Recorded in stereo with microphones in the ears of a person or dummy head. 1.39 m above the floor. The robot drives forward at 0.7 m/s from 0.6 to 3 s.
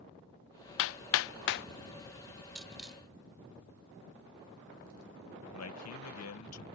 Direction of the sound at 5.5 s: 85° left.